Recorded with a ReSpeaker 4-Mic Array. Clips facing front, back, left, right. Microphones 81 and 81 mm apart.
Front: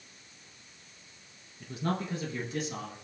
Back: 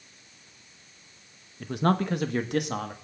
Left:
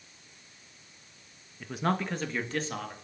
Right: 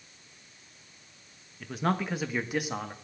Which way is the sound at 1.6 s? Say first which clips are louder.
Back 8 dB, even; 175° left.